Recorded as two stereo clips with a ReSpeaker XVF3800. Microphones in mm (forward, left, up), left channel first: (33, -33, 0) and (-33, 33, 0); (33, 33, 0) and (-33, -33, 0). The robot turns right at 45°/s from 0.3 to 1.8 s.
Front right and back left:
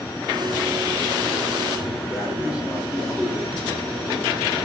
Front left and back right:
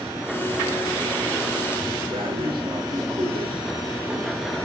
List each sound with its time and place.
2.1 s breathing: 145° right, 3 m